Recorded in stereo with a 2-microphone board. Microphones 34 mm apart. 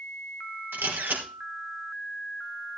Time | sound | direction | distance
0.7 | a camera shutter | 85° right | 3.5 m